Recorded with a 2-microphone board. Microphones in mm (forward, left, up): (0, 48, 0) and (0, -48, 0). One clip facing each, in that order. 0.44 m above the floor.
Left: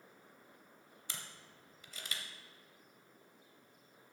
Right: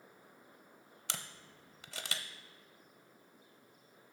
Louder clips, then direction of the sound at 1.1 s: Right 5 dB; 80° right.